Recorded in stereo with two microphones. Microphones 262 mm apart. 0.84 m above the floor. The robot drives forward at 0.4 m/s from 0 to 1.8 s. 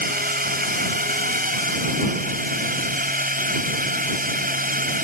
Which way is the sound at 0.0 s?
35° right (ahead or behind).